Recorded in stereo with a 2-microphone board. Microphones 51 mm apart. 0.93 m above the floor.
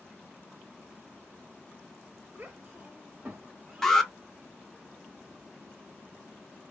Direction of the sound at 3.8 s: 5° left (ahead or behind).